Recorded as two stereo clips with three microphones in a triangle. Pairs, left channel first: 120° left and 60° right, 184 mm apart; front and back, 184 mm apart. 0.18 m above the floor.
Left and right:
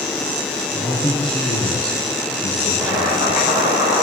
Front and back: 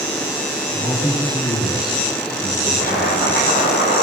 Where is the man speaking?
55° left, 3.5 m; by 3.5 s 80° left, 3 m.